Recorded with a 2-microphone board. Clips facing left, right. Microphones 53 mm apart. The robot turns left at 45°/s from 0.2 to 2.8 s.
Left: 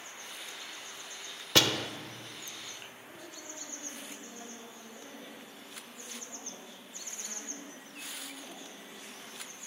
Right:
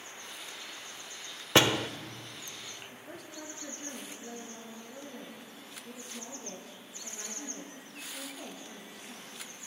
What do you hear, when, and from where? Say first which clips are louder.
1.6 s a door slam: right 3 dB; 25° right (ahead or behind), 0.8 m; by 1.9 s 15° right (ahead or behind), 0.8 m
2.9 s a woman speaking: right 2 dB; 65° right (ahead or behind), 10 m